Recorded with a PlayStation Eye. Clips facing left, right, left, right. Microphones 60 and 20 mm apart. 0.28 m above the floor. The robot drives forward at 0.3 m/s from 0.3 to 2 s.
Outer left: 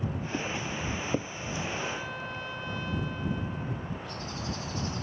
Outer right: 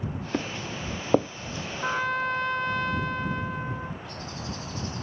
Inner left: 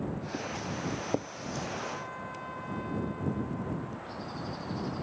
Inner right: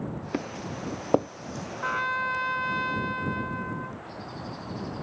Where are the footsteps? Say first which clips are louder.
Outer right 4 dB, inner right 5 dB; 80° right; by 1.3 s 85° right.